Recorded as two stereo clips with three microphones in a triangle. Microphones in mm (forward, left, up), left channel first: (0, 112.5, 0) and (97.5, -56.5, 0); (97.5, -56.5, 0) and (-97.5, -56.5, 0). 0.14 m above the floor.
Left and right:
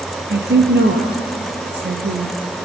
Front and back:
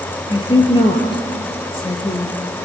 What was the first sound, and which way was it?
A woman speaking, 60° right.